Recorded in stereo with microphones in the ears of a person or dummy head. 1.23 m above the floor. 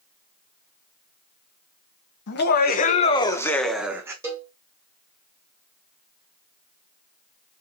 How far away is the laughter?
About 0.8 m.